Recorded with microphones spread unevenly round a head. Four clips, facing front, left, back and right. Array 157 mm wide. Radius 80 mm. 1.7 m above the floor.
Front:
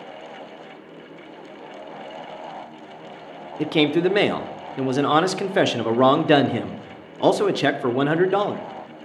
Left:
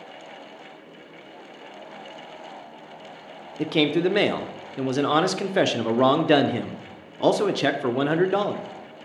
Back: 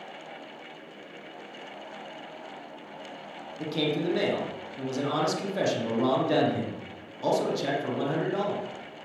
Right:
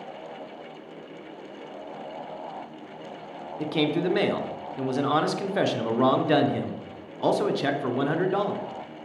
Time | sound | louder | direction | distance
3.6 | a man speaking | left 4 dB, front 9 dB | 55° left | 0.8 m